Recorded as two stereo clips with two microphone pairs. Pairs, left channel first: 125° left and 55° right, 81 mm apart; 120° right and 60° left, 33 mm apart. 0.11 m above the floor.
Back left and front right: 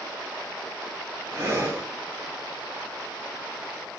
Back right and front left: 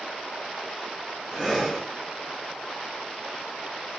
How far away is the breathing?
About 1.9 m.